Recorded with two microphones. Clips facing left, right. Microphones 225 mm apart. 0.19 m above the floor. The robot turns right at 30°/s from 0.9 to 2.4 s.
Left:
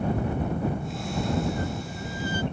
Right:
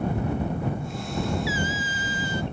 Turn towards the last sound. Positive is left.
turn(degrees=-70)  # may be behind; listen again after turning